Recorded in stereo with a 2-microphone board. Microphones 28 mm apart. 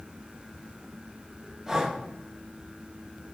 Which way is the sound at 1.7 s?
15° right (ahead or behind).